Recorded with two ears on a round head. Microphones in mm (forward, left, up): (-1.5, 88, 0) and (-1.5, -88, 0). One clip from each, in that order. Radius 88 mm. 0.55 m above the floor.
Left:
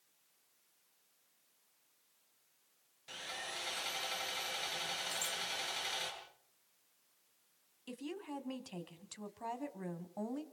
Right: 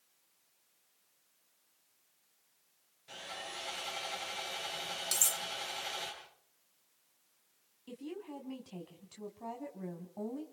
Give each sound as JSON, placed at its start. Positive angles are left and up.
{"t": 3.1, "sound": "sawing", "side_deg": 30, "distance_m": 8.5}
{"t": 5.1, "sound": "cutlery clinking", "side_deg": -45, "distance_m": 0.6}
{"t": 7.9, "sound": "a woman speaking", "side_deg": 45, "distance_m": 3.5}